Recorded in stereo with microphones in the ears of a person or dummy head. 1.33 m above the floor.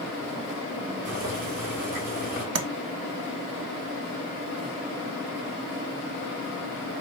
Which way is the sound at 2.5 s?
80° right.